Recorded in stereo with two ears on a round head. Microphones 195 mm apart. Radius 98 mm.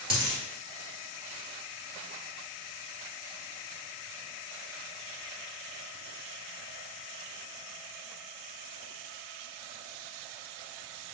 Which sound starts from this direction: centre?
A dropped coin, at 0.1 s.